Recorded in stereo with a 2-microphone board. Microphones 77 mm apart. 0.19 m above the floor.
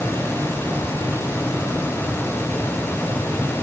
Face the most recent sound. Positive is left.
No sound to turn to.